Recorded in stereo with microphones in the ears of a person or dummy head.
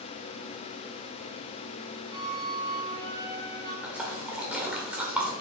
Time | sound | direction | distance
2.1 | a flute | 25° right (ahead or behind) | 1.6 m
3.8 | a splash | 10° right (ahead or behind) | 1.7 m